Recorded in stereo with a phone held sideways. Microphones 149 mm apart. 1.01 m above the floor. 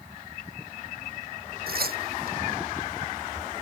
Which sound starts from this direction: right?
Tearing paper, at 1.7 s.